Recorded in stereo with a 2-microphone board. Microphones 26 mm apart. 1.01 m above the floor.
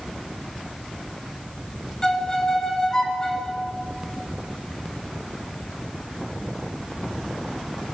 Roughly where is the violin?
Left.